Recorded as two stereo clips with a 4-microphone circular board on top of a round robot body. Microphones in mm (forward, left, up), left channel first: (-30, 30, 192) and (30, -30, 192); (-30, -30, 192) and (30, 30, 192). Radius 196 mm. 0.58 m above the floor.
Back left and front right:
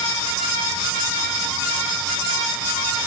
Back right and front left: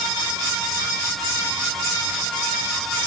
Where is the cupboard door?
I don't hear a cupboard door.